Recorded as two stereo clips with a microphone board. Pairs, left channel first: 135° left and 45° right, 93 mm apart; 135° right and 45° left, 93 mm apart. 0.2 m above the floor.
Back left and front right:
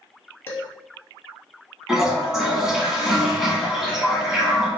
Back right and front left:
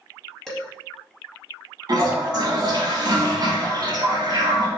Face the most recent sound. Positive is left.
turn(degrees=40)